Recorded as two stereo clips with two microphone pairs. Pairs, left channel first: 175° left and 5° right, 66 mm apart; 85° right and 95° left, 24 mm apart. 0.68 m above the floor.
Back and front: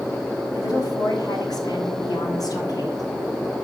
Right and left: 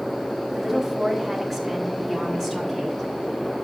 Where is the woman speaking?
170° right, 5.5 m; by 3.0 s 160° right, 6 m.